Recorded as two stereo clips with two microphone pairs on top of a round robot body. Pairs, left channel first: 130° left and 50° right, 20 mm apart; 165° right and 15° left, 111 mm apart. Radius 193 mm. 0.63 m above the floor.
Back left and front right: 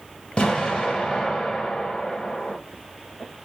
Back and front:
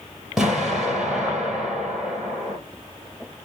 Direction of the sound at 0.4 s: 105° left.